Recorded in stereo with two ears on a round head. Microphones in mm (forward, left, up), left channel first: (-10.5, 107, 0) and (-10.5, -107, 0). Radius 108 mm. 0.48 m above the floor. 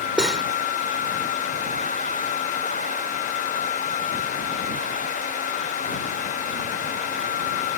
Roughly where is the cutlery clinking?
Centre.